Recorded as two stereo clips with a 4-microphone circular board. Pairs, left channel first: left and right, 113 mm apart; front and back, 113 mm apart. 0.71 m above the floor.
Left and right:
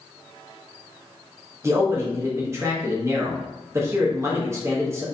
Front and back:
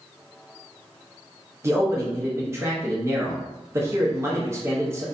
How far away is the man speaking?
About 0.7 m.